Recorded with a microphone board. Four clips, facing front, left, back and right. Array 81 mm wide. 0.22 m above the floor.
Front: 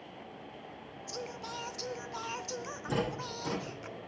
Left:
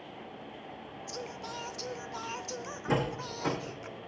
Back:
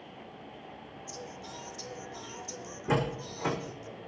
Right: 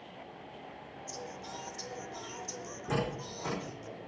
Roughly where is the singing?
Ahead left.